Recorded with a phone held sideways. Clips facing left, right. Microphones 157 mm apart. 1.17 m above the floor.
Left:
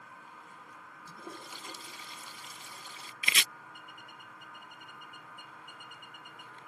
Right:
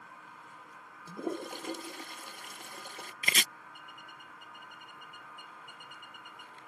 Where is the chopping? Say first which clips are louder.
Right 2 dB; 45° right (ahead or behind).